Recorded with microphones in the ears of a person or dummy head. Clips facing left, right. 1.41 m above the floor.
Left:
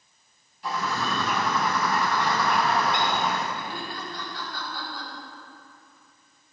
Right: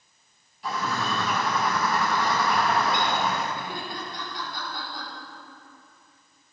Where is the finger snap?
I don't hear a finger snap.